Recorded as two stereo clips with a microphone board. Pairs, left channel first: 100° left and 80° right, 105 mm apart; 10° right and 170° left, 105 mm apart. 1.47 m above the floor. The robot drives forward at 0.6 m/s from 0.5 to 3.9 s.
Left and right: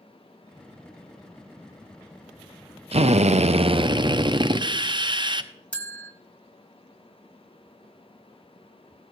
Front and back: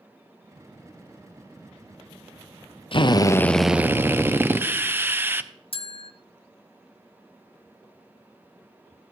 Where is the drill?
50° right, 0.6 m; by 5.5 s 120° right, 0.5 m.